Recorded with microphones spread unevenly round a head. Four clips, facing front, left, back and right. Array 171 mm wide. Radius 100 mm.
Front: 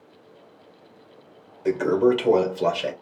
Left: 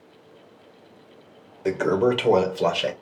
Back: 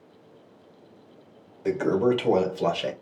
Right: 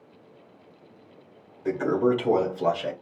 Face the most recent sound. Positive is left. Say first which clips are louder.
# left 2 dB, front 3 dB
turn(degrees=65)